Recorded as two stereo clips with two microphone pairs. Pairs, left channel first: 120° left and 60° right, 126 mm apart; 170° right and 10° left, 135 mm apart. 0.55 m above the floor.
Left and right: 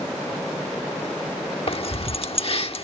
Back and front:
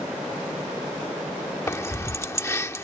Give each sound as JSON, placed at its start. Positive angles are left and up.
{"t": 1.7, "sound": "keys jangling", "azimuth_deg": 125}